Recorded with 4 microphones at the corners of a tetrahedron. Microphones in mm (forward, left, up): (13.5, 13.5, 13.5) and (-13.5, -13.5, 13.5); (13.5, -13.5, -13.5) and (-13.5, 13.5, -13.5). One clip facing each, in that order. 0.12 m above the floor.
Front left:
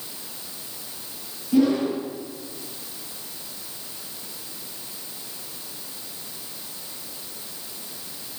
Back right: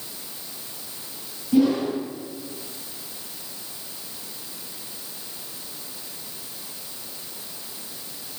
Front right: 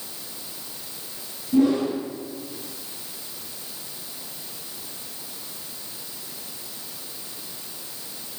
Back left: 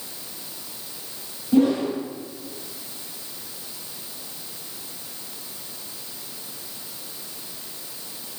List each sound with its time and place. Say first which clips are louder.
1.5 s a whoosh: even, back left 1 dB; 145° left, 3 m